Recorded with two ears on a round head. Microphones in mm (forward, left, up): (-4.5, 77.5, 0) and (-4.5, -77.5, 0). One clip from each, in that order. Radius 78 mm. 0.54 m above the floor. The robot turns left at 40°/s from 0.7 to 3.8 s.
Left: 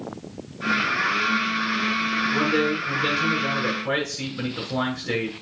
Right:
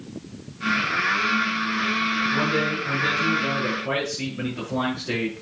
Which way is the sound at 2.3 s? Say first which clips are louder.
Left 1 dB; 95° left.